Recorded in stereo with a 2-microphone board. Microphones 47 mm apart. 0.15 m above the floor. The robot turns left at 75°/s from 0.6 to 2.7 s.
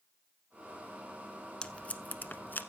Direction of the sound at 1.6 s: 20° left (ahead or behind).